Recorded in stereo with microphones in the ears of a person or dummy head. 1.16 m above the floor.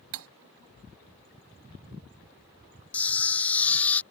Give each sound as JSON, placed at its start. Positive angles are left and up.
{"t": 0.1, "sound": "cutlery clinking", "side_deg": -70}
{"t": 2.9, "sound": "a camera shutter", "side_deg": 10}